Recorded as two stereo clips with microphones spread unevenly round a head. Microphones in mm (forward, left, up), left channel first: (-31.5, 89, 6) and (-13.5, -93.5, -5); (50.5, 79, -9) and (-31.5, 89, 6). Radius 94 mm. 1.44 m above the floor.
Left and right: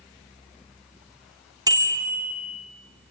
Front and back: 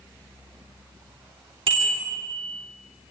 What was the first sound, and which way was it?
A bicycle bell, 155° right.